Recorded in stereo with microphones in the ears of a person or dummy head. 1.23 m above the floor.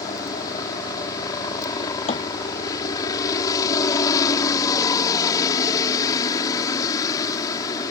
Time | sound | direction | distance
0.0 | a helicopter | 20° left (ahead or behind) | ?
2.1 | a thud | 35° left (ahead or behind) | ?